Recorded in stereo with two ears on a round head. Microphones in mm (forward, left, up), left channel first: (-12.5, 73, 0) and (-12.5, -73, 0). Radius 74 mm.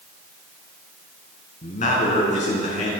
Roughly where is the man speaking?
Left.